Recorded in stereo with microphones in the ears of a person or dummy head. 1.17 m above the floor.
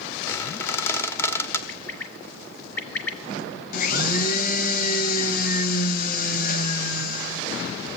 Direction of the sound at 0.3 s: 15° left (ahead or behind).